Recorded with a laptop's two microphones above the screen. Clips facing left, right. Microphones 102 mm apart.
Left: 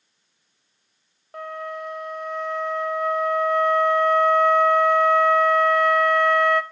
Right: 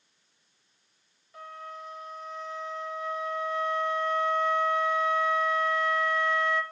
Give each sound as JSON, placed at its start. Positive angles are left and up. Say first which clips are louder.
{"t": 1.3, "sound": "a flute", "louder": "left 10 dB", "side_deg": 65, "distance_m": 0.6}